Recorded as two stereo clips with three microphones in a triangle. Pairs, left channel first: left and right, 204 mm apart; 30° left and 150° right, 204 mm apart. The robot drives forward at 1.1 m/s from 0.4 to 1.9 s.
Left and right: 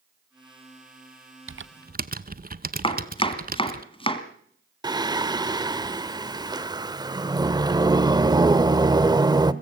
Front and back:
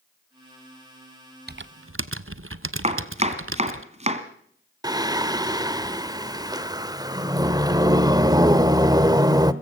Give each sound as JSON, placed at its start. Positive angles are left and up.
{"t": 1.5, "sound": "typing on a keyboard", "azimuth_deg": -105, "distance_m": 0.6}
{"t": 2.8, "sound": "chopping", "azimuth_deg": 155, "distance_m": 1.8}
{"t": 4.8, "sound": "singing", "azimuth_deg": -115, "distance_m": 0.8}